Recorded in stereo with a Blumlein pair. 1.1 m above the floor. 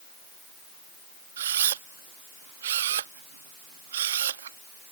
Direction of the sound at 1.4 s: 60° right.